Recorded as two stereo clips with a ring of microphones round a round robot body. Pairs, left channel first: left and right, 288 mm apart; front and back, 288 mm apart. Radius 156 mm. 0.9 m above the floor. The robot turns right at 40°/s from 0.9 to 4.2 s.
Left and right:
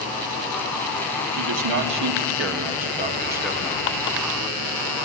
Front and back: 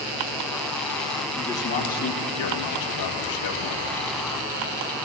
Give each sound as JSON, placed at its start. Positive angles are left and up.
{"t": 1.3, "sound": "a man speaking", "azimuth_deg": -90, "distance_m": 2.0}